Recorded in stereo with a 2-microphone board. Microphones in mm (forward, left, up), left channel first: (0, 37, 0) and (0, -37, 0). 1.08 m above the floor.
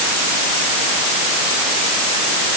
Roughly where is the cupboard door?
I don't hear a cupboard door.